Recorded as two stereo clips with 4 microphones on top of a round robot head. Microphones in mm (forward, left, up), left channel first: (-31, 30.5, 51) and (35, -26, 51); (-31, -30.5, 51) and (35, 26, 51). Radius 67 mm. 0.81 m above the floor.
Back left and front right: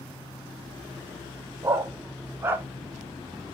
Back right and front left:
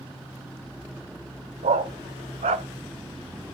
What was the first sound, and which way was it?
A dog barking, 25° left.